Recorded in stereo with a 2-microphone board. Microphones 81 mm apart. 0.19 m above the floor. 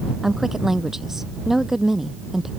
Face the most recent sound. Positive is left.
turn(degrees=-5)  # may be behind; listen again after turning